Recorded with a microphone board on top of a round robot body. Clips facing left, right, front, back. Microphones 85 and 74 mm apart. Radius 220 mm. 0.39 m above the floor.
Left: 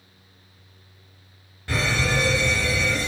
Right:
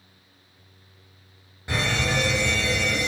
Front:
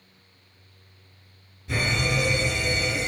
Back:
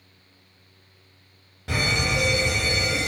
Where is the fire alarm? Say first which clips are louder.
Left 1 dB, back 1 dB; 160° right, 6.5 m.